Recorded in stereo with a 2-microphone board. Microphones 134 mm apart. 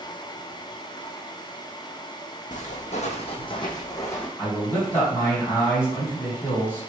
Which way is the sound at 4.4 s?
10° left (ahead or behind).